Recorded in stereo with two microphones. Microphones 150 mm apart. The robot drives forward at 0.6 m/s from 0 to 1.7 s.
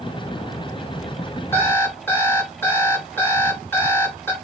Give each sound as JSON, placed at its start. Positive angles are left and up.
{"t": 1.5, "sound": "an alarm clock", "side_deg": 15, "distance_m": 2.5}